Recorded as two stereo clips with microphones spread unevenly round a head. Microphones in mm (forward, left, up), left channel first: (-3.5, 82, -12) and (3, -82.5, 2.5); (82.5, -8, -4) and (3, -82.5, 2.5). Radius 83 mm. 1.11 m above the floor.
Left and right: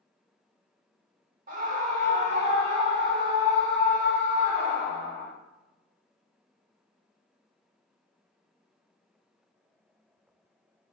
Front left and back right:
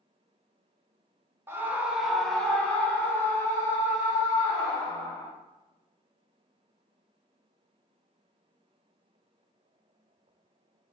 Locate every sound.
1.5 s a scream: 70° right, 0.9 m; by 5.3 s 10° right, 2.5 m